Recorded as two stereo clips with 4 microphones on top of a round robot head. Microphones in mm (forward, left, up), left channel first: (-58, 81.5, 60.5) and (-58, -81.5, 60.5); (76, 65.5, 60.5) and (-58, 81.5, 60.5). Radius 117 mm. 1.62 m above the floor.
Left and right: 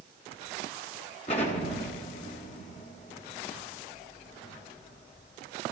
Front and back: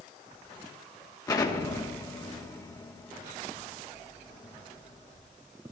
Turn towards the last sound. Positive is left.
turn(degrees=45)